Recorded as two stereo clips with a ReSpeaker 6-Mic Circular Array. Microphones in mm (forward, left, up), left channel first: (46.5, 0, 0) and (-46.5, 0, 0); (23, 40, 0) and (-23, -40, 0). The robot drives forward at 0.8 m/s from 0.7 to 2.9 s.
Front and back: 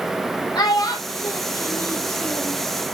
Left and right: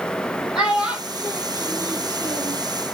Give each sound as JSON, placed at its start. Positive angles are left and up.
{"t": 0.6, "sound": "a child speaking", "azimuth_deg": -35, "distance_m": 2.0}